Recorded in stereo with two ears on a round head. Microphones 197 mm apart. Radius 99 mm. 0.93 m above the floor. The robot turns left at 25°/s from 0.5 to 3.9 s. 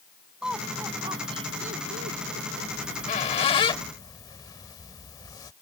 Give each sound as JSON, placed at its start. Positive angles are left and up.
{"t": 0.4, "sound": "laughter", "side_deg": -5}
{"t": 2.8, "sound": "a squeak", "side_deg": 40}